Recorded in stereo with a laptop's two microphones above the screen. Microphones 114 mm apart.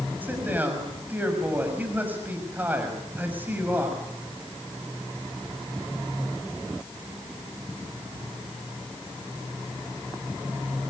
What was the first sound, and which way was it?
A man speaking, 15° right (ahead or behind).